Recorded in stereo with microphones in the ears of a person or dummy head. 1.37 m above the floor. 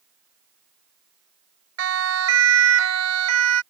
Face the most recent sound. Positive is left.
turn(degrees=-90)